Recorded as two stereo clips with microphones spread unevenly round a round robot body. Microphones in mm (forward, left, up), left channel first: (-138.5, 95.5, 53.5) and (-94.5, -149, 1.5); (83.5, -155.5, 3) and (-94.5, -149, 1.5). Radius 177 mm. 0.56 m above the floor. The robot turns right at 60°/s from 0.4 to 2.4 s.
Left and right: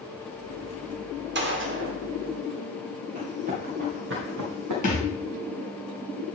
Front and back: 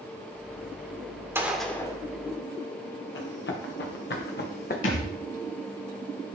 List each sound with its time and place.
1.4 s a gunshot: 105° right, 1.4 m; by 2.0 s 65° right, 1.4 m
3.1 s running footsteps: 5° right, 3 m; by 4.7 s 30° right, 1.9 m
4.8 s a thud: 30° left, 1.3 m